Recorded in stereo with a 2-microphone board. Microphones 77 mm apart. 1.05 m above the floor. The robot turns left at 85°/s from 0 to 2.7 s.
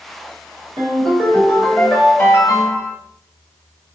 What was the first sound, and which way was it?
A ringtone, 90° right.